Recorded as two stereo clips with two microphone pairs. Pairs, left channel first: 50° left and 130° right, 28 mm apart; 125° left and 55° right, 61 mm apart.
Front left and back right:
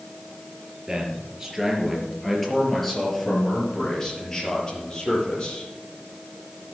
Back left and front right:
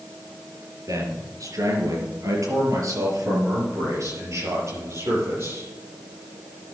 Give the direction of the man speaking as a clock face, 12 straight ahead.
2 o'clock.